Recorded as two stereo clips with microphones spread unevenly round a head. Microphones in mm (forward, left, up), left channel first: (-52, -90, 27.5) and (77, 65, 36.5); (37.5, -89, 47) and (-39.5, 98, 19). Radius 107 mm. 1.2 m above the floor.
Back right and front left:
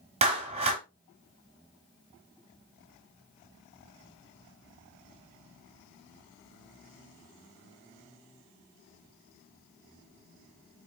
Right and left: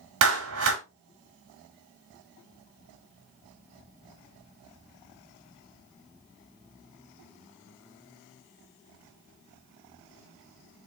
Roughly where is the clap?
Behind left.